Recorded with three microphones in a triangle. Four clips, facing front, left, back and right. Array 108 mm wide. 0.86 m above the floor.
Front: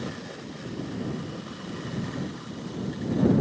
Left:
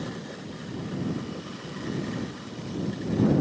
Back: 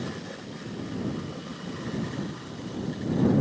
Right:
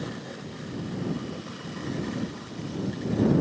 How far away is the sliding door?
I don't hear a sliding door.